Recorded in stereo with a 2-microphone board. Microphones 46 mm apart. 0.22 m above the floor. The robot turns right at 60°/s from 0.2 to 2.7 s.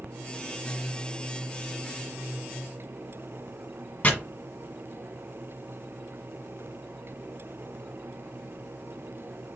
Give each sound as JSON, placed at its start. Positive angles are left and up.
{"t": 4.0, "sound": "chopping", "side_deg": 30, "distance_m": 1.4}